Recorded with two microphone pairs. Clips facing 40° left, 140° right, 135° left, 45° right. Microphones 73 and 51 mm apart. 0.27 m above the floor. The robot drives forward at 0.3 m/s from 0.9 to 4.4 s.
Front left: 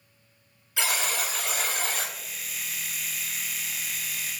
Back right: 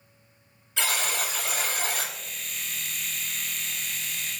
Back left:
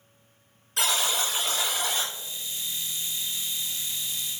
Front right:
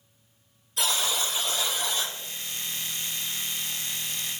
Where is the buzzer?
125° left, 1.2 m; by 2.1 s 135° left, 1.5 m.